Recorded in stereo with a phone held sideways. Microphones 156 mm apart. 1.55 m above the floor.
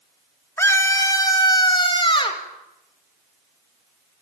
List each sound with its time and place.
0.6 s a scream: 15° left (ahead or behind), 3.5 m; by 2.4 s 35° left (ahead or behind), 5 m